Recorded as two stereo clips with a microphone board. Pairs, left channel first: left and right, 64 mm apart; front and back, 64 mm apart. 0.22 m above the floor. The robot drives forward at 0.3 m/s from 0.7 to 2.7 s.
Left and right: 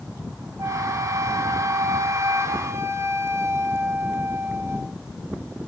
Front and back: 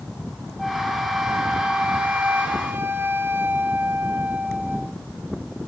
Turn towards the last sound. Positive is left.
turn(degrees=-130)